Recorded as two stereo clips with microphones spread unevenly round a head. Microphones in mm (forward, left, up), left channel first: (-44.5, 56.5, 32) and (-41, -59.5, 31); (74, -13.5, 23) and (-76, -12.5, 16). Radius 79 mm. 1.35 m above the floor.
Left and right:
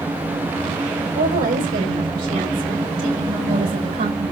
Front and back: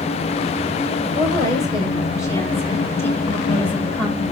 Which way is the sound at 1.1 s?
65° right.